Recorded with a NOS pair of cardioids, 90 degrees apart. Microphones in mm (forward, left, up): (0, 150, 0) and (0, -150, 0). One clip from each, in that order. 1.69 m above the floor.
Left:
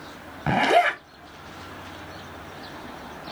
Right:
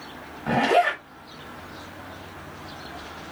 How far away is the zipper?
About 1.3 m.